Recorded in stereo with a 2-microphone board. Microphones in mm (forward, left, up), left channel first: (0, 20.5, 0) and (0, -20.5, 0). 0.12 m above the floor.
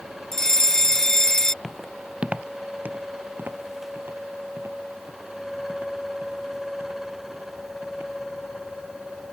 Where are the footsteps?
5° left (ahead or behind); by 8.1 s 65° right (ahead or behind).